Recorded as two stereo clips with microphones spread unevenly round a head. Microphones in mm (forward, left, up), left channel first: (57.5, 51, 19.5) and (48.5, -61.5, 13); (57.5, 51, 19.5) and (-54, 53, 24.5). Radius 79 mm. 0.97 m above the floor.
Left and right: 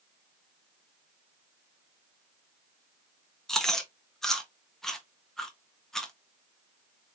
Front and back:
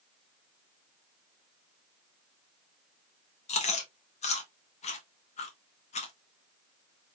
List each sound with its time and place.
3.5 s chewing: straight ahead, 1.1 m